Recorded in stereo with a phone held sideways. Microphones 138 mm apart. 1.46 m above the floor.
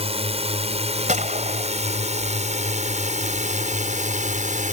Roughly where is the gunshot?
Right.